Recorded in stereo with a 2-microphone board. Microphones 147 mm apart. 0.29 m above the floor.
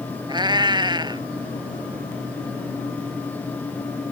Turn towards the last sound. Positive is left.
turn(degrees=-30)  # may be behind; listen again after turning